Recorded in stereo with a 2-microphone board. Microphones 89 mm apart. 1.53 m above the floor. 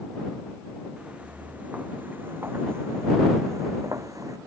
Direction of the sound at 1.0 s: 10° right (ahead or behind).